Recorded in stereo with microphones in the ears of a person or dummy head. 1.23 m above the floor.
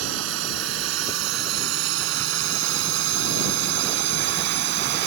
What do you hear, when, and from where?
0.0 s a drone: 85° right; by 5.1 s 65° right (ahead or behind)